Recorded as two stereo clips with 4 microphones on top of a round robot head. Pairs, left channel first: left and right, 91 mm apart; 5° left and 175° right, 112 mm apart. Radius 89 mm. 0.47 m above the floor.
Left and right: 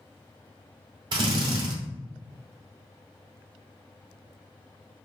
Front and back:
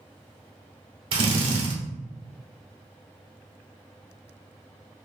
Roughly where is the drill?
Behind right.